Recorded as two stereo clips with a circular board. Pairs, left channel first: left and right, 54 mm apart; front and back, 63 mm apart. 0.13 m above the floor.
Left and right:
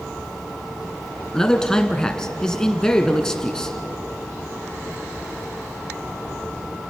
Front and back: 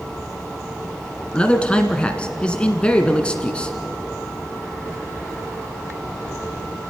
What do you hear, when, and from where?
1.3 s a man speaking: 35° left, 1.3 m